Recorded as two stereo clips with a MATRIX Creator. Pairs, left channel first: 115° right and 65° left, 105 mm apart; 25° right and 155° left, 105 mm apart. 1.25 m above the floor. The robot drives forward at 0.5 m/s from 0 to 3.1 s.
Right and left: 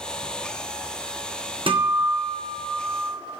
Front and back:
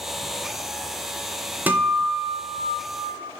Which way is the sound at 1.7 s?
85° left.